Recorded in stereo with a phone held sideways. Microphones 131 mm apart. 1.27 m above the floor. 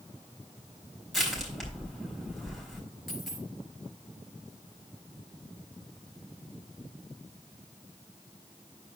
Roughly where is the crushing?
Centre.